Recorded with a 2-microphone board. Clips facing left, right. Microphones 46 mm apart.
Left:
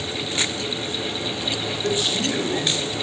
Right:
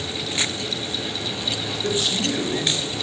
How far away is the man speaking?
About 4.5 m.